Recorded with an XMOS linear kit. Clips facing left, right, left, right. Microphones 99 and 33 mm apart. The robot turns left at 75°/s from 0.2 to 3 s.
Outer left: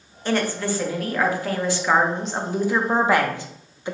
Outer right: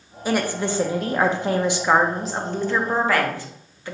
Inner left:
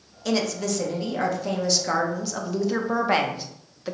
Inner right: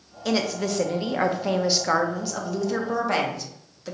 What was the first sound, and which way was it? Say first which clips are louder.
A woman speaking: even, even; 10° right (ahead or behind).